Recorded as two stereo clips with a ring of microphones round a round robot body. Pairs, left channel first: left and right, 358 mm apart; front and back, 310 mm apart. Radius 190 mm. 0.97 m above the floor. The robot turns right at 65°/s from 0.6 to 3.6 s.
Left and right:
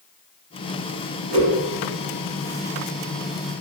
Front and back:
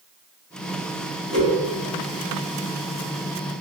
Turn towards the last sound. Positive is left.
turn(degrees=40)